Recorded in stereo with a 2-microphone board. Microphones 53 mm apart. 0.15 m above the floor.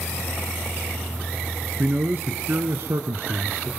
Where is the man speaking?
35° right (ahead or behind), 1.8 m; by 3.7 s 55° right (ahead or behind), 1.7 m.